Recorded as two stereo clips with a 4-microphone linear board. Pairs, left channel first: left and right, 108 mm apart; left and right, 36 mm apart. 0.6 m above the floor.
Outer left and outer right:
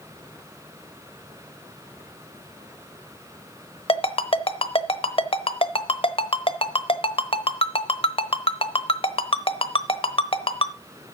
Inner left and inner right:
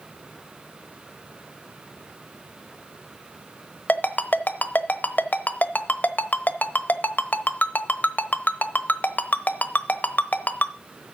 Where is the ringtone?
55° left (ahead or behind), 0.9 m.